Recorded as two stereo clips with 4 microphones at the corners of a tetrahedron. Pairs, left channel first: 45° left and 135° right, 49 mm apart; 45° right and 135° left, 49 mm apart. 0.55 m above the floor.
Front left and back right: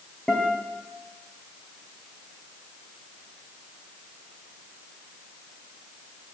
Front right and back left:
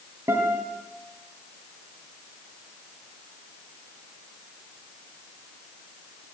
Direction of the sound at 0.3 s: 125° left.